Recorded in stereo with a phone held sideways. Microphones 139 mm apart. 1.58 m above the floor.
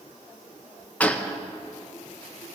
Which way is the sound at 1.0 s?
10° left (ahead or behind).